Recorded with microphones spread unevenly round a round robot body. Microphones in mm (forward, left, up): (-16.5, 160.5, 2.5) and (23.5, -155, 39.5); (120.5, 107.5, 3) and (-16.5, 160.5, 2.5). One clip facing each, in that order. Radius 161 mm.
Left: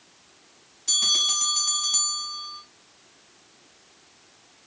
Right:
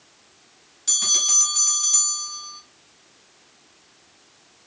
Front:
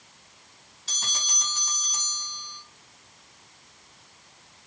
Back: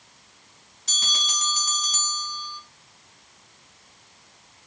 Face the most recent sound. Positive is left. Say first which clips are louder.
# right 2 dB, back 4 dB
turn(degrees=-135)